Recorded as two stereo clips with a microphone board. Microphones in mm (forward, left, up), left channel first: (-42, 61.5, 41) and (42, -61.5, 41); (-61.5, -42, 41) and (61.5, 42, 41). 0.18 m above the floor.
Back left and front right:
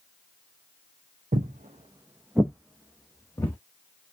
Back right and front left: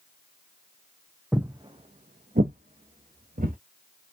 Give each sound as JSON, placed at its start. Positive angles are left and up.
{"t": 1.3, "sound": "footsteps", "azimuth_deg": -50, "distance_m": 0.5}